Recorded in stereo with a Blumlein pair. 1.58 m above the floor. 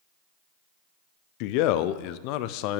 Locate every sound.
1.4 s a man speaking: 45° left, 0.6 m